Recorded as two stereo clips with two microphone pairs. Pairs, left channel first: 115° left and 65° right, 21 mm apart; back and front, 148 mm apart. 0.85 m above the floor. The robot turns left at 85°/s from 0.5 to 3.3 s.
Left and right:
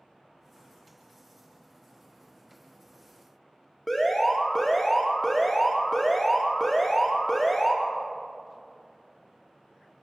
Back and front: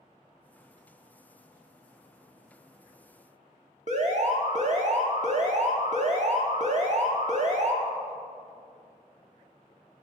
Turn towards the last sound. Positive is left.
turn(degrees=40)